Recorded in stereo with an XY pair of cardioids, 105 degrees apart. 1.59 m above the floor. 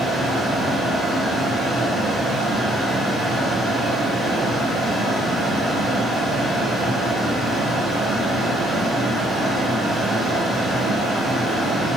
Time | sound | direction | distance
0.0 | a fan | 20° right | 1.6 m